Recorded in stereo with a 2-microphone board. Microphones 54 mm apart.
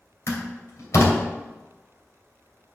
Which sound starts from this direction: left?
A door slam, at 0.3 s.